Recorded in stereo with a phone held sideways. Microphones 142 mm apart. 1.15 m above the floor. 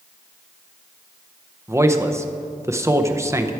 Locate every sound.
1.7 s a man speaking: 20° right (ahead or behind), 0.6 m